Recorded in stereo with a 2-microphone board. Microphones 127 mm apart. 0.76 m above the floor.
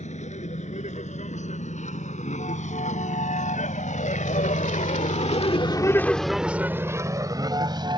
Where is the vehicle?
65° left (ahead or behind); by 8.0 s 35° right (ahead or behind).